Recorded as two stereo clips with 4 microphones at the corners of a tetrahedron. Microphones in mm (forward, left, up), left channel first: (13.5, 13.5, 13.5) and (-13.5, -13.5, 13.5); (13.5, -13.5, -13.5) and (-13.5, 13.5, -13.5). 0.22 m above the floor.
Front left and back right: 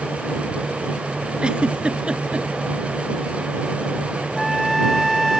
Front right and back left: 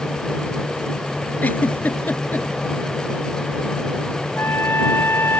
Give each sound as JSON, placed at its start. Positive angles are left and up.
{"t": 1.4, "sound": "a giggle", "azimuth_deg": -75}
{"t": 4.4, "sound": "a trumpet", "azimuth_deg": -45}